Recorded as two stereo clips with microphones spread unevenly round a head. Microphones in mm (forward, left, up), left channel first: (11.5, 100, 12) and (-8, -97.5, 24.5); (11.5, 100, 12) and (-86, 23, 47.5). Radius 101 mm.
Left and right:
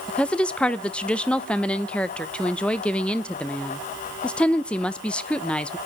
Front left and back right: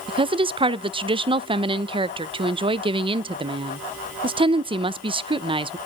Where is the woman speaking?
170° left, 0.5 m.